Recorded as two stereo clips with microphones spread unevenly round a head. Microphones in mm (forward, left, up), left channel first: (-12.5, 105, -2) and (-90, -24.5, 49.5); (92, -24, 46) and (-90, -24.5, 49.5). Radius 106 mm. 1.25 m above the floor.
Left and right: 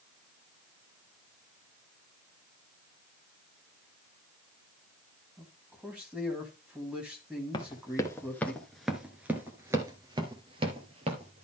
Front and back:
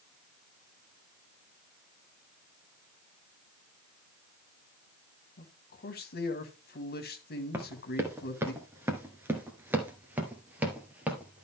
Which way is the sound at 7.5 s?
125° left.